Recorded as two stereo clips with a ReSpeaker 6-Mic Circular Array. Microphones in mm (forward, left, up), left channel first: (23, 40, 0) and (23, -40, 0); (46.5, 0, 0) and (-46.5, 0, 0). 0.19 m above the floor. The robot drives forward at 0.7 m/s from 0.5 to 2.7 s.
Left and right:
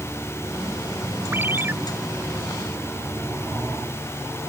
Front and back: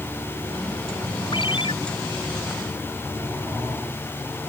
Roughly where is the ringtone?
Ahead right.